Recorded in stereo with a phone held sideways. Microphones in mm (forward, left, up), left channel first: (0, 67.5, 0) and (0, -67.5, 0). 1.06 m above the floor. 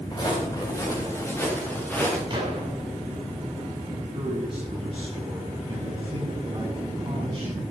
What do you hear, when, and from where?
0.1 s footsteps: 35° left (ahead or behind), 7.5 m; by 2.2 s 10° left (ahead or behind), 8 m
2.3 s a gunshot: 35° right (ahead or behind), 7 m
4.1 s a man speaking: 40° right (ahead or behind), 9 m